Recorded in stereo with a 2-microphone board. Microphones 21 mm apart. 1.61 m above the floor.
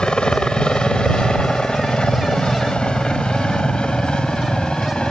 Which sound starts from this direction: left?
A helicopter, at 0.0 s.